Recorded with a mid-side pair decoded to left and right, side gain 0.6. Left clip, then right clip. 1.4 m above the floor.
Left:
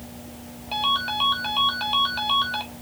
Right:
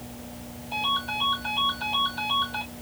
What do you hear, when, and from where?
0.7 s a ringtone: 55° left, 4 m